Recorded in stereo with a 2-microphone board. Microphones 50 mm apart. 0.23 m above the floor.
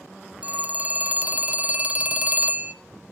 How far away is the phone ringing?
About 0.7 m.